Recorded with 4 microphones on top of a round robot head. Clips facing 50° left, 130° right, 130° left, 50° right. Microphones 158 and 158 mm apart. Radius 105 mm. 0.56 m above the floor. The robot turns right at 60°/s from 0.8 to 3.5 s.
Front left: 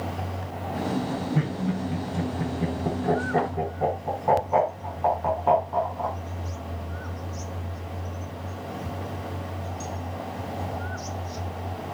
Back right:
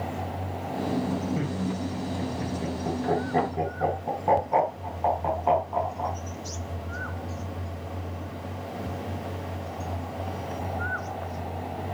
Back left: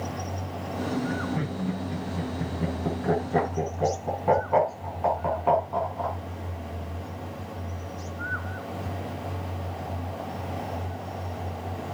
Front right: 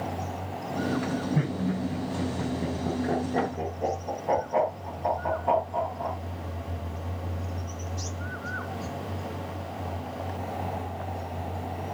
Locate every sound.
1.4 s laughter: 15° left, 7 m; by 6.2 s 145° left, 7 m